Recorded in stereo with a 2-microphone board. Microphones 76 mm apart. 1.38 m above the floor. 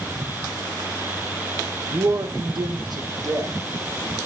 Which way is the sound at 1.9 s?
55° right (ahead or behind).